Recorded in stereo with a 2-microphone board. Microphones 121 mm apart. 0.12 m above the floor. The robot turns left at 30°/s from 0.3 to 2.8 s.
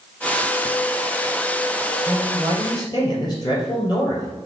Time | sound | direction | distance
2.1 | a man speaking | 15° left (ahead or behind) | 3 m